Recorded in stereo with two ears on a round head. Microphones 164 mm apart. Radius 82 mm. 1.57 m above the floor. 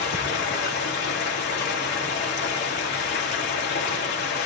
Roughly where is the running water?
Left.